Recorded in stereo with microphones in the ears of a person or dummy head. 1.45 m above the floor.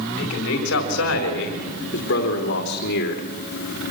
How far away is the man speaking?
About 4 m.